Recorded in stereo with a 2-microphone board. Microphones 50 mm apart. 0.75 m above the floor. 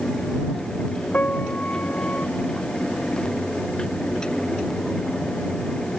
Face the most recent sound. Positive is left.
turn(degrees=30)  # may be behind; listen again after turning